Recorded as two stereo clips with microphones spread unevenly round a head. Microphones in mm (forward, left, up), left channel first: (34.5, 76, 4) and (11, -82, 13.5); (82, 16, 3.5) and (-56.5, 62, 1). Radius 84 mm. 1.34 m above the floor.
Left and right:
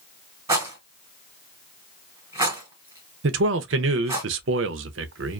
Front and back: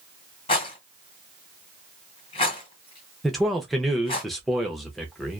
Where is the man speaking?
110° right, 0.5 m.